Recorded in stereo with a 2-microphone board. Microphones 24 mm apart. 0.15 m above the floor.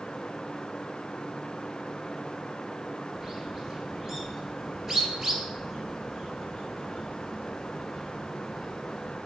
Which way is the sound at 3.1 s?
15° right (ahead or behind).